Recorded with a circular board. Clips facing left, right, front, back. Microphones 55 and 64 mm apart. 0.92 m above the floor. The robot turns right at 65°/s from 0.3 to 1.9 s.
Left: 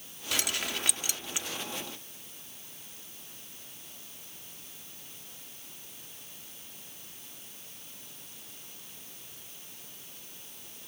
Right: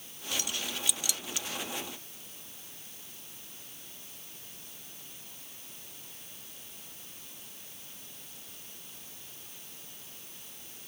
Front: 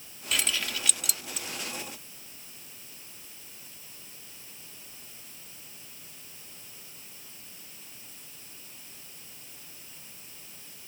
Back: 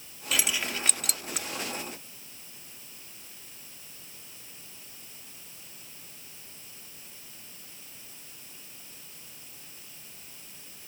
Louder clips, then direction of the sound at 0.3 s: Left 3 dB, back 1 dB; 90° left.